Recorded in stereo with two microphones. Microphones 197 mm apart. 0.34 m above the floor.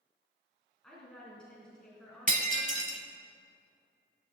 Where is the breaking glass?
45° right (ahead or behind), 1.1 m.